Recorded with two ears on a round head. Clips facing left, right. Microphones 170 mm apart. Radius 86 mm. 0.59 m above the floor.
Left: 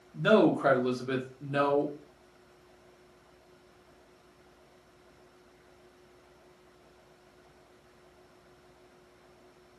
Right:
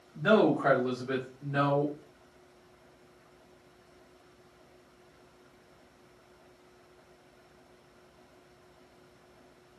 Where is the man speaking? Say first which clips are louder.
Left 1 dB; 35° left (ahead or behind), 1.0 m.